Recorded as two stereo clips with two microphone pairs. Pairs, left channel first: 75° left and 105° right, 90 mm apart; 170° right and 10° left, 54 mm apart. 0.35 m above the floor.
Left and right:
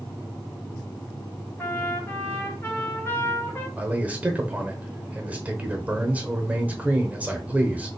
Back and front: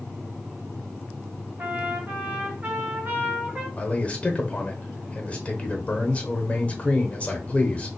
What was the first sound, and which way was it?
A trumpet, 30° left.